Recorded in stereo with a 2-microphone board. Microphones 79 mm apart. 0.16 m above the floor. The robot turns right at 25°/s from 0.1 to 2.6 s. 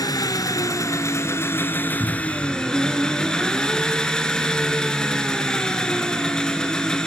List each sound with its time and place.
0.0 s an engine running: 105° left, 1.0 m; by 7.1 s 170° left, 1.0 m
2.0 s a cupboard door: 40° left (ahead or behind), 1.6 m; by 2.5 s 45° left (ahead or behind), 1.6 m